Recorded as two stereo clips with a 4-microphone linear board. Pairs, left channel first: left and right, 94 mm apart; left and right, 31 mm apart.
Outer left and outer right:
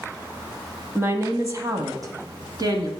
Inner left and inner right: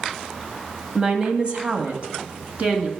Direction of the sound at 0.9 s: 25° right (ahead or behind).